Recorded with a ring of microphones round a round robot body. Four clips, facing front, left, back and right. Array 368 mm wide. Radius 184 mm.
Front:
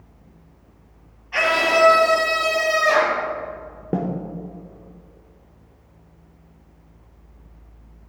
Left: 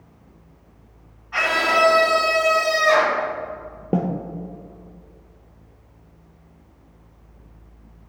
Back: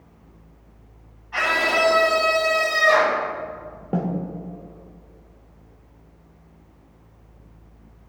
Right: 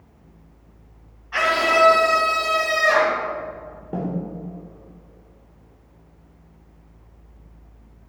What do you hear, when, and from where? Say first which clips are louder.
1.3 s a scream: right 1 dB, front 3 dB; 30° right, 2 m; by 3.2 s 25° right, 3.5 m
3.9 s a snare drum: left 5 dB, front 1 dB; 60° left, 0.9 m